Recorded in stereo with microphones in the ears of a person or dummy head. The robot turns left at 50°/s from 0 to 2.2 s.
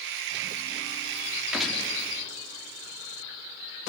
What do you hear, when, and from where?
1.5 s a gunshot: 5° right (ahead or behind), 1.9 m; by 1.9 s 15° left (ahead or behind), 1.9 m